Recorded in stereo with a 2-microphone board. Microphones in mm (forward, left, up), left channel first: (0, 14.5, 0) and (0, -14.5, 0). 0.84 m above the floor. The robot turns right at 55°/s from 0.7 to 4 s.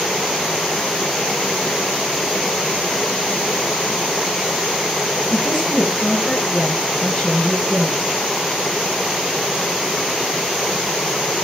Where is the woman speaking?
25° left (ahead or behind), 9 m.